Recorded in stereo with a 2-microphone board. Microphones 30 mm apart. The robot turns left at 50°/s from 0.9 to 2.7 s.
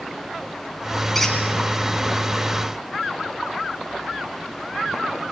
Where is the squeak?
10° left (ahead or behind), 5.5 m; by 1.4 s centre (ahead or behind), 5.5 m.